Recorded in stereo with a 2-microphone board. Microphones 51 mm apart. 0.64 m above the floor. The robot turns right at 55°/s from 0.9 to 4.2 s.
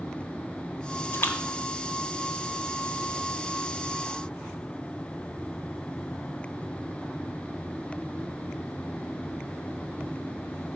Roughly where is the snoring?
I don't hear snoring.